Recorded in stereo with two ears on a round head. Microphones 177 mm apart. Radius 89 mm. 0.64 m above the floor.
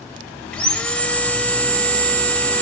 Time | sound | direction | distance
0.5 | sawing | 5° left (ahead or behind) | 0.6 m